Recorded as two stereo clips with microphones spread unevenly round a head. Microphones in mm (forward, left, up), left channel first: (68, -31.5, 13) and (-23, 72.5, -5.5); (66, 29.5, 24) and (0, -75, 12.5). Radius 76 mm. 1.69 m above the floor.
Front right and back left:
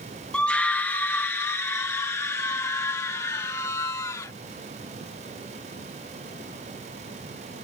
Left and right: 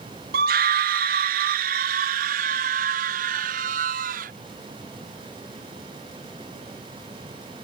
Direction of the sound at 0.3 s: 135° right.